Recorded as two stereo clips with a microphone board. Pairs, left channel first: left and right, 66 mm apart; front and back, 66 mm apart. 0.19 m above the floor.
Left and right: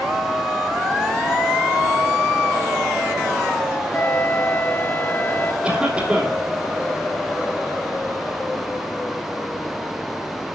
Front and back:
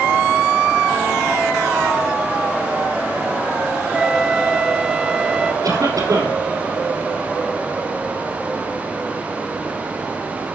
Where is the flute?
115° left, 0.5 m.